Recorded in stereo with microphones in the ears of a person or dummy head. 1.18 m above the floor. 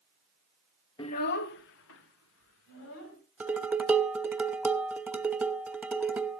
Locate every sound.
1.0 s a child speaking: 25° left (ahead or behind), 0.6 m; by 3.2 s 80° left, 3 m
3.4 s dishes clattering: 10° right (ahead or behind), 1.0 m